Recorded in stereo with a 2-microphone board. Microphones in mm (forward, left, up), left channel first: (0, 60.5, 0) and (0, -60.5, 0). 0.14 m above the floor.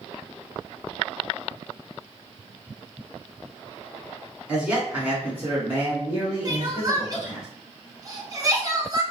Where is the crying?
30° right (ahead or behind), 0.7 m.